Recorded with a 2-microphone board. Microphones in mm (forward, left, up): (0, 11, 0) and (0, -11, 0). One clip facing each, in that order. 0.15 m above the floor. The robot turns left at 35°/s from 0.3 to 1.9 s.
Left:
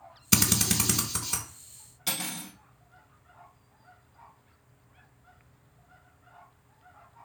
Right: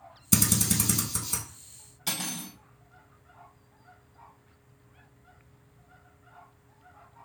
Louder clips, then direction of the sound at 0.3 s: Left 1 dB; 30° left (ahead or behind).